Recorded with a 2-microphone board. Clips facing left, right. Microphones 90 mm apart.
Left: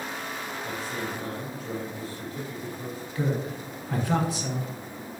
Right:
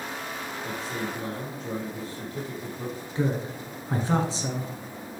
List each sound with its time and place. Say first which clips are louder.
0.6 s a man speaking: right 1 dB; 30° right (ahead or behind), 2.5 m
3.1 s a woman speaking: right 1 dB; 30° right (ahead or behind), 1.2 m